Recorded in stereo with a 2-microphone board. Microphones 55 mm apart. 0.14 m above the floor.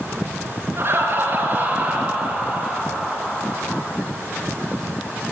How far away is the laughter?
About 2.5 m.